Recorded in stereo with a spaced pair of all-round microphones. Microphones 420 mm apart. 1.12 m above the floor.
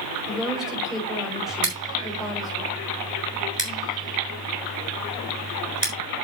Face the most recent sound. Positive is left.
turn(degrees=-75)  # may be behind; listen again after turning